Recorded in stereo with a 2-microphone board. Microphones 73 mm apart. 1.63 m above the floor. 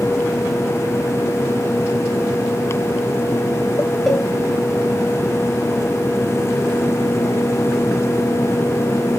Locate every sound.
4.1 s a cowbell: 5° left (ahead or behind), 0.6 m